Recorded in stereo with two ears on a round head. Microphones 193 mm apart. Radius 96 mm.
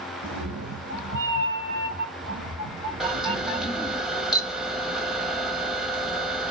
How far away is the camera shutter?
About 0.8 m.